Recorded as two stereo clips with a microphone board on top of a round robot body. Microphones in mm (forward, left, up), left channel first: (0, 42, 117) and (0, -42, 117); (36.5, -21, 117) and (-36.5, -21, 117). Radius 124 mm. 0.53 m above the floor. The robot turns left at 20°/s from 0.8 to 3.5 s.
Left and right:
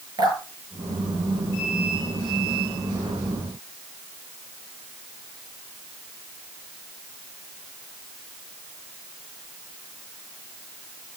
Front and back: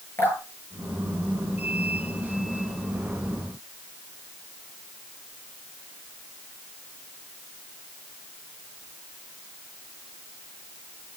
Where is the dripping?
55° right, 9.5 m; by 1.9 s 80° right, 9.5 m.